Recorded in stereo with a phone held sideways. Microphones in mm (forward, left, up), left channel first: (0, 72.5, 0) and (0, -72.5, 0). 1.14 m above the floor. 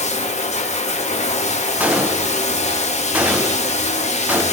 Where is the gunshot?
10° right (ahead or behind), 0.5 m.